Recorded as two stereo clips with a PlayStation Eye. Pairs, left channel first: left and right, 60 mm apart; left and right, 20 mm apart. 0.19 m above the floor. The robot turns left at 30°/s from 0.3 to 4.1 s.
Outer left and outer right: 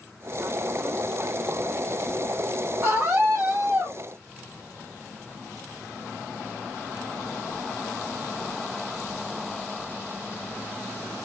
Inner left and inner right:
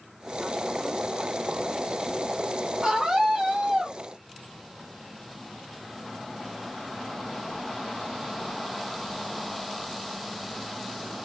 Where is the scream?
35° right, 2 m; by 4.0 s 70° right, 2 m.